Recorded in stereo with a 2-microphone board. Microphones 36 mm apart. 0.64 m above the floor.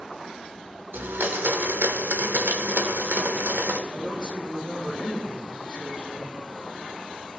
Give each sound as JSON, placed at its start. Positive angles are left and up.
{"t": 0.9, "sound": "a blender", "side_deg": -75, "distance_m": 0.9}
{"t": 3.9, "sound": "a woman speaking", "side_deg": 25, "distance_m": 4.0}